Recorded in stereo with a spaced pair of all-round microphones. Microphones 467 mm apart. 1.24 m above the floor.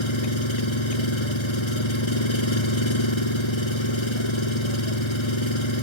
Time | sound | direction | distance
0.0 | an engine running | 75° left (ahead or behind) | ?